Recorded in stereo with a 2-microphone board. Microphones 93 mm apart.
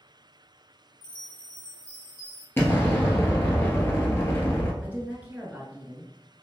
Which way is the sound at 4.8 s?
15° right (ahead or behind).